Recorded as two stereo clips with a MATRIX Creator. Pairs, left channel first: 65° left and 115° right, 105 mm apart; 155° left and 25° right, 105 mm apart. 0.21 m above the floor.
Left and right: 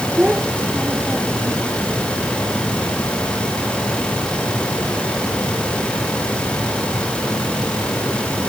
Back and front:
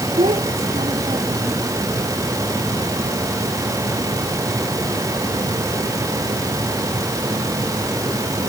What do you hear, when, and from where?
0.2 s a child speaking: 30° right; by 1.6 s 35° right